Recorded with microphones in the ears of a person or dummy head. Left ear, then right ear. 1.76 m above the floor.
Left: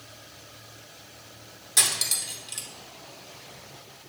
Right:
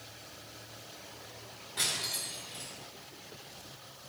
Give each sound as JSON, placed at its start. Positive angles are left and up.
{"t": 1.8, "sound": "cutlery clinking", "side_deg": 65, "distance_m": 2.0}